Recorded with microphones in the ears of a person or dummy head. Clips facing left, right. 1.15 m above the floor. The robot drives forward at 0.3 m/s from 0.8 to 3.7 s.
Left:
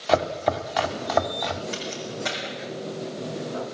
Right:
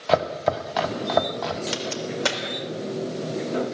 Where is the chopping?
5° right (ahead or behind), 1.7 m.